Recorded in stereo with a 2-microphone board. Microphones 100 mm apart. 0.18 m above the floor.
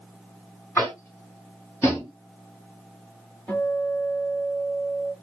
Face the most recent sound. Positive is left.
turn(degrees=20)  # may be behind; listen again after turning